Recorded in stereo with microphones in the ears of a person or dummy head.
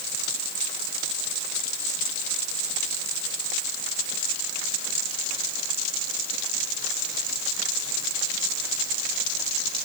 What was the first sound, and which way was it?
Only background noise.